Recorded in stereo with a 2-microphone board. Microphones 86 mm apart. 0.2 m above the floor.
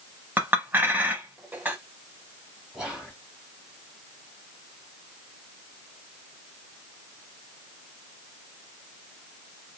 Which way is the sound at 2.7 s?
10° right (ahead or behind).